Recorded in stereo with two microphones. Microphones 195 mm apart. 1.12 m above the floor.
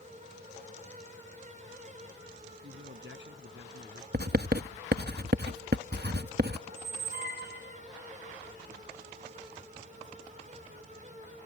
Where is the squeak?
60° right (ahead or behind).